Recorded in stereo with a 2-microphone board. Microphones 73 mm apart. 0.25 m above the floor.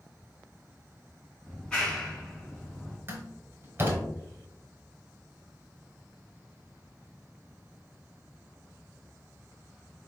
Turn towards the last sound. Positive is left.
turn(degrees=-35)  # may be behind; listen again after turning